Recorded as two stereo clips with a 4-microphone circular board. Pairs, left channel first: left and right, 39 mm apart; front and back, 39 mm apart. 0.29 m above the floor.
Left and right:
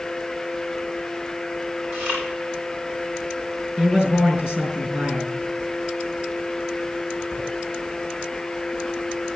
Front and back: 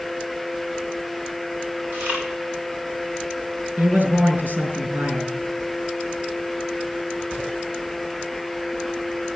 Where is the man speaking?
140° right, 5.5 m.